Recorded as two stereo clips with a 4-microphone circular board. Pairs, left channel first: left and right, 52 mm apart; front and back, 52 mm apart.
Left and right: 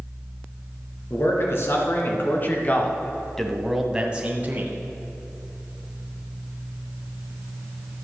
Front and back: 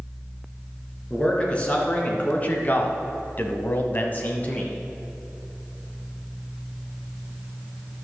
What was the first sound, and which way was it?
A man speaking, 65° left.